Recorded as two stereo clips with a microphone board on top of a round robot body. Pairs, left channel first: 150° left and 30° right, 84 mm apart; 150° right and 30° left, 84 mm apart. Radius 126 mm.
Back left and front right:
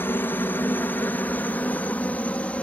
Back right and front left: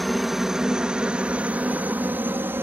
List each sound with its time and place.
0.0 s a helicopter: 120° left; by 2.6 s 80° left